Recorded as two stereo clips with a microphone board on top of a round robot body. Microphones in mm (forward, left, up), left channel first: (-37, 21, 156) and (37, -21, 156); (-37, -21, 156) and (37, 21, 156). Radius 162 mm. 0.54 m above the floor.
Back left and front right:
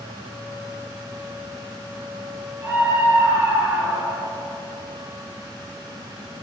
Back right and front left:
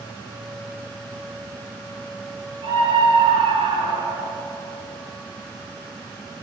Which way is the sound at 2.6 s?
35° left.